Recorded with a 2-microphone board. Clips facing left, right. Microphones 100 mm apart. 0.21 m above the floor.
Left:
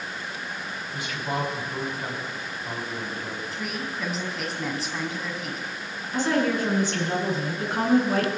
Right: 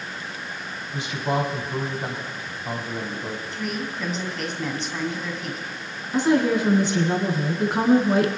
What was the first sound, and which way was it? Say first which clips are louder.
A man speaking: right 5 dB; 25° right (ahead or behind).